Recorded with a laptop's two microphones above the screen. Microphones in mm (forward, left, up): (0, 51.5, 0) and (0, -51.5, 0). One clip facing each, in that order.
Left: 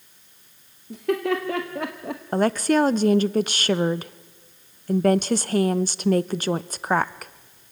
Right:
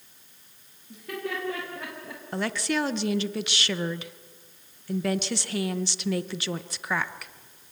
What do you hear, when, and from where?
0.9 s laughter: 80° left, 2.0 m; by 2.2 s 60° left (ahead or behind), 0.9 m
2.3 s a woman speaking: 45° left (ahead or behind), 0.5 m